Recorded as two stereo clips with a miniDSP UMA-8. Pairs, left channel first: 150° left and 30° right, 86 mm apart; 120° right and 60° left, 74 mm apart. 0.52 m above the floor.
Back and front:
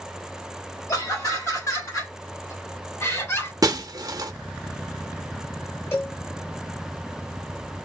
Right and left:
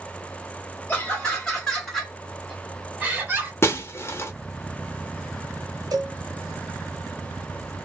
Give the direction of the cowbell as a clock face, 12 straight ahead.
9 o'clock.